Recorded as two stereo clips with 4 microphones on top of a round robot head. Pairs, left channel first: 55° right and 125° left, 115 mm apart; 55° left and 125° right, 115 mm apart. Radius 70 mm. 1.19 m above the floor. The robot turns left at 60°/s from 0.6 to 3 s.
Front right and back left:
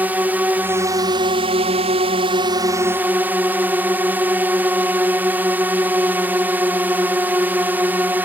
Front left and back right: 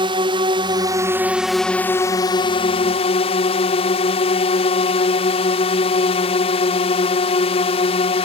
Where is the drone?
160° right; by 8.3 s 55° left.